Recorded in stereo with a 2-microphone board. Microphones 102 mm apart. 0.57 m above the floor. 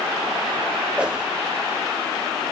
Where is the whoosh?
10° right (ahead or behind), 1.0 m.